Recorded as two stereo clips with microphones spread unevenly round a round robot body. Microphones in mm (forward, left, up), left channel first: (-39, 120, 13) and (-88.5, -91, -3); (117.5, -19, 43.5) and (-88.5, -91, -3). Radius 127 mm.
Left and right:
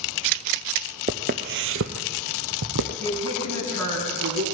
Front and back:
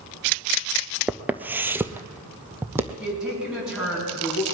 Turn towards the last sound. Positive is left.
turn(degrees=-75)